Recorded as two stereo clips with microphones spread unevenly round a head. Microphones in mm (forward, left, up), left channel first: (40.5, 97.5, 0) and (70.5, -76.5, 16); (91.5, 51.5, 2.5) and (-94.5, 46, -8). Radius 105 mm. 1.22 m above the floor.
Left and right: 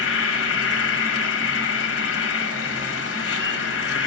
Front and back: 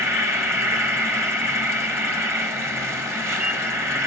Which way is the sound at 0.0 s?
105° left.